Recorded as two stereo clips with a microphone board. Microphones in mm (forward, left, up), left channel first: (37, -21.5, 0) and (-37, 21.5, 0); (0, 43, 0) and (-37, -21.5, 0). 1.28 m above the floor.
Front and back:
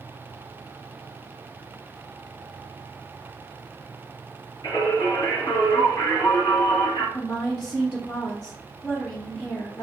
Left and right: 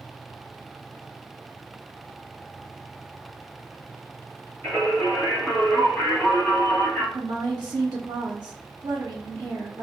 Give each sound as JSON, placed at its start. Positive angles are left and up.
{"t": 4.6, "sound": "singing", "azimuth_deg": -10, "distance_m": 1.9}
{"t": 7.1, "sound": "a woman speaking", "azimuth_deg": -95, "distance_m": 0.5}